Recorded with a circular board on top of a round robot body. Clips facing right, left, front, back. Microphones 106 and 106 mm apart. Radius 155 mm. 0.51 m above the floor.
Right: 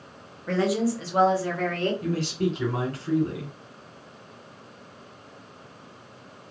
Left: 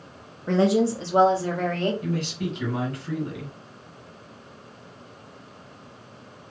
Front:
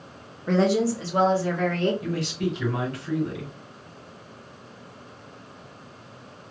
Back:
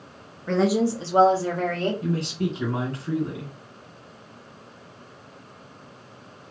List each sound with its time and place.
0.5 s a woman speaking: 65° left, 0.8 m; by 1.9 s 150° left, 1.5 m
2.0 s a man speaking: 130° right, 2 m